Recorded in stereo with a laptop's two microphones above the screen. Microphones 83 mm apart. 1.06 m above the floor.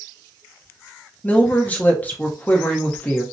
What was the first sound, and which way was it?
A woman speaking, 20° left (ahead or behind).